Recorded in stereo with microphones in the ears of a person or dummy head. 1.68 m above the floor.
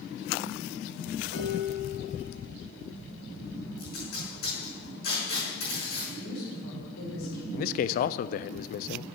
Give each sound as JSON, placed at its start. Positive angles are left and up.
{"t": 1.3, "sound": "dishes clattering", "side_deg": 75, "distance_m": 2.5}
{"t": 3.8, "sound": "tape being pulled", "side_deg": 50, "distance_m": 5.5}
{"t": 6.1, "sound": "a woman speaking", "side_deg": 80, "distance_m": 4.0}
{"t": 7.5, "sound": "a man speaking", "side_deg": 50, "distance_m": 0.5}